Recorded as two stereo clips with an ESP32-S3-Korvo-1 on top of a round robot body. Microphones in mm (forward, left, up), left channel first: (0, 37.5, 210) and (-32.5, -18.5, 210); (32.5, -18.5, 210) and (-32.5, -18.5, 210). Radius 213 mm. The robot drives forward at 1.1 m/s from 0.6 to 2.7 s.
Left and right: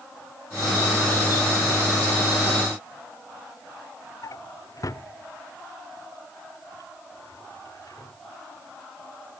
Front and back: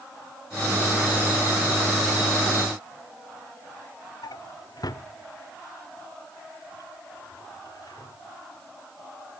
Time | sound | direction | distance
4.2 | a drawer | 25° left | ?